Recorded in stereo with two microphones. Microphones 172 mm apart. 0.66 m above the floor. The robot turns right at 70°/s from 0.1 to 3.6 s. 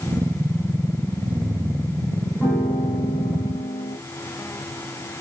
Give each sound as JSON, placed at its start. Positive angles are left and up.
{"t": 2.4, "sound": "a piano", "azimuth_deg": 5, "distance_m": 1.8}